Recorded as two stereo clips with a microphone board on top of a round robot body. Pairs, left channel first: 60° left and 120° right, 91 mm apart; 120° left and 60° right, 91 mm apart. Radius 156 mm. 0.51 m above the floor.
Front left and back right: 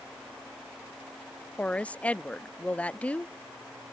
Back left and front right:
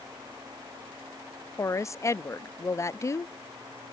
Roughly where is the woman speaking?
Behind left.